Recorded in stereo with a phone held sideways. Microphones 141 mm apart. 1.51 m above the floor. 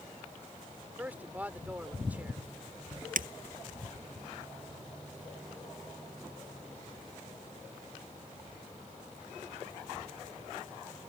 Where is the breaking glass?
75° right (ahead or behind).